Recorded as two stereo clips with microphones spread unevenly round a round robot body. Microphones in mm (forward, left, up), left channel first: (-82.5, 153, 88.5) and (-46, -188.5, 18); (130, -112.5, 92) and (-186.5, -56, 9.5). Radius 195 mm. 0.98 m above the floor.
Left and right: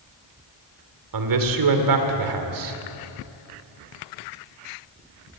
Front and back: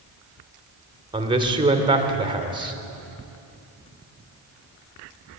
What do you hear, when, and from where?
1.1 s a man speaking: 115° right, 2.5 m